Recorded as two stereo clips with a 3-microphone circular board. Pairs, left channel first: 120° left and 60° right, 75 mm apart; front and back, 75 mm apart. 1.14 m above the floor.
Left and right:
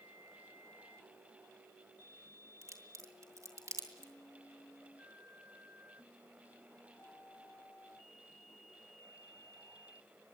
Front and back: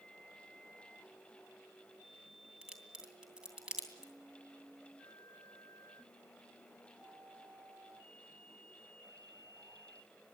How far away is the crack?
About 2.5 m.